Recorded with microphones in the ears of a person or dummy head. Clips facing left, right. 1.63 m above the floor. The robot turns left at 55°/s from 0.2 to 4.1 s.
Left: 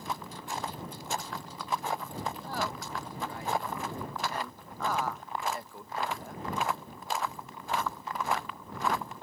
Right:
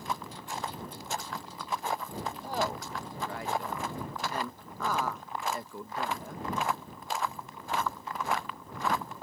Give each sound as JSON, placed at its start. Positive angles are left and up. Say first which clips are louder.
{"t": 2.4, "sound": "a woman speaking", "louder": "right 3 dB", "side_deg": -15}